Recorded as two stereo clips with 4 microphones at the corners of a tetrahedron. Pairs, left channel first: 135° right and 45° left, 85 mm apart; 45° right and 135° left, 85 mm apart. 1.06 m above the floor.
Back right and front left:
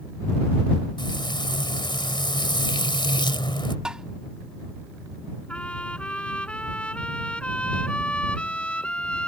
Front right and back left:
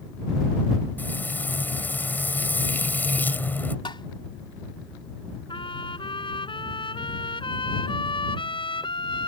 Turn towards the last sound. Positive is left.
turn(degrees=-60)